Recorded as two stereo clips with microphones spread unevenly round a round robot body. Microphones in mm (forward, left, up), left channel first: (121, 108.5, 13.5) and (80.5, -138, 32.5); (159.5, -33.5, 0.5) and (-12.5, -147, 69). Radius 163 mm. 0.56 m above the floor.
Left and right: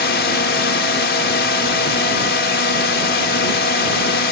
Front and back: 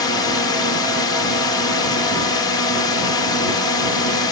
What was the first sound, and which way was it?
A drone, 70° left.